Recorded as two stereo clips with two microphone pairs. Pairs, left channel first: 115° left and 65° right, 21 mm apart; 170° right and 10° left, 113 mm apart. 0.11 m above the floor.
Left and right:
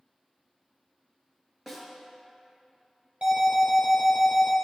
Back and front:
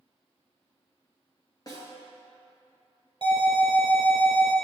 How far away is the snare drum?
About 1.6 m.